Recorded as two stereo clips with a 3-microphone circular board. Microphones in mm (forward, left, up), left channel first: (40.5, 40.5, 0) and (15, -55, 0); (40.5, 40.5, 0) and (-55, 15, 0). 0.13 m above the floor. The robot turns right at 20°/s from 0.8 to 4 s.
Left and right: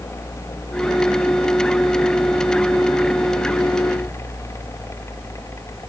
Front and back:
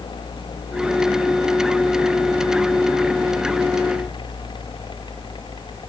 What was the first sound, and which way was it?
Only background noise.